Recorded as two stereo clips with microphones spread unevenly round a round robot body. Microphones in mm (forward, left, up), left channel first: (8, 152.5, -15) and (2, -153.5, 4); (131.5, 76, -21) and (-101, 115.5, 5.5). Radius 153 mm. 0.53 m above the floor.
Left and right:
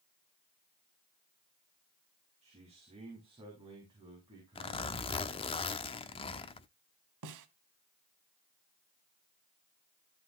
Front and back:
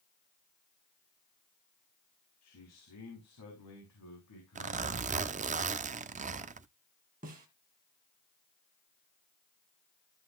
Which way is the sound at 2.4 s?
20° right.